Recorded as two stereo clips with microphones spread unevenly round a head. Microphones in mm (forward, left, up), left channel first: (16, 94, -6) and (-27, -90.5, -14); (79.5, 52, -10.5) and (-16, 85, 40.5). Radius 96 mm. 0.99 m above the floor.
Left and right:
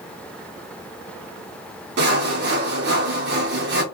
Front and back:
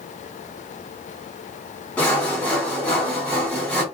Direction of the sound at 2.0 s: 80° right.